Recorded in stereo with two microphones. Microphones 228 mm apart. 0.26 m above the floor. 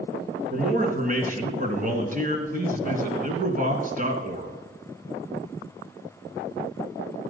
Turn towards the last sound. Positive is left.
turn(degrees=-35)  # may be behind; listen again after turning